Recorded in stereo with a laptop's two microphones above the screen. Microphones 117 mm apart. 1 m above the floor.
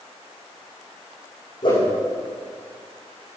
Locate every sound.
1.6 s a whoosh: 45° left (ahead or behind), 8 m